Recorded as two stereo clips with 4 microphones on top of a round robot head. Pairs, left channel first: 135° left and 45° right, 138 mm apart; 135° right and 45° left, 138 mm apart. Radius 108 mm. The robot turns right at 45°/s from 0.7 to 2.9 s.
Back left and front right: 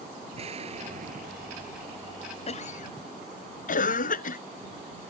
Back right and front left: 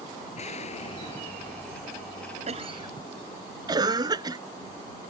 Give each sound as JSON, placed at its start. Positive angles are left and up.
{"t": 0.3, "sound": "an explosion", "azimuth_deg": -90}
{"t": 2.5, "sound": "a cough", "azimuth_deg": 90}